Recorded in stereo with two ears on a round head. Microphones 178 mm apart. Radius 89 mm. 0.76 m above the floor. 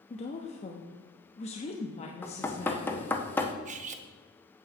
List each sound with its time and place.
0.1 s a woman speaking: 30° left (ahead or behind), 0.9 m
2.2 s knocking: 10° left (ahead or behind), 0.9 m
3.6 s cutlery clinking: 35° right (ahead or behind), 0.8 m